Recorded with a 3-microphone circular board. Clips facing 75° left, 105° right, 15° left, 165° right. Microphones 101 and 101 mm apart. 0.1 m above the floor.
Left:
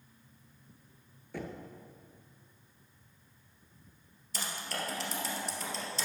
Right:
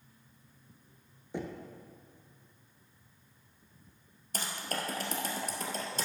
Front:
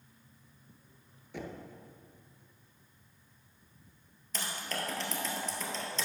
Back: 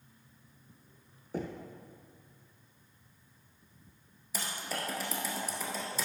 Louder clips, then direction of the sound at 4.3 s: Right 2 dB, even; 85° right.